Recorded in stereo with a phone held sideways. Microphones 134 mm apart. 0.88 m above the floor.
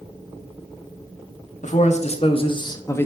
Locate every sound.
1.6 s a man speaking: 65° left (ahead or behind), 1.3 m; by 3.1 s 15° left (ahead or behind), 0.9 m